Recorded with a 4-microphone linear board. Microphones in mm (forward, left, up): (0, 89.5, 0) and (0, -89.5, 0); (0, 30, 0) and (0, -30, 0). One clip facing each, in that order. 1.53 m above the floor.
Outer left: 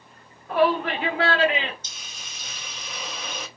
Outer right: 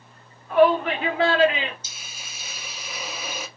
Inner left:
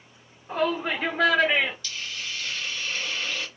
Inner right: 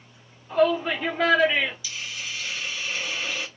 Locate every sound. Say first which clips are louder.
0.5 s a shout: outer right 4 dB, inner right 4 dB; 65° left (ahead or behind), 1.3 m; by 1.7 s 80° left, 1.4 m
1.8 s a hiss: even, even; 5° right (ahead or behind), 0.5 m